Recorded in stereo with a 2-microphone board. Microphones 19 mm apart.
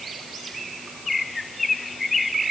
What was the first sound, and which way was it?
Only background noise.